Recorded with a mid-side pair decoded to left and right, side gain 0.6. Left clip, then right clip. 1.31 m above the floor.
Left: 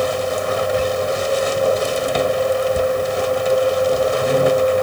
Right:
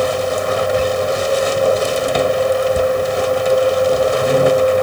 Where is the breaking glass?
No breaking glass in this recording.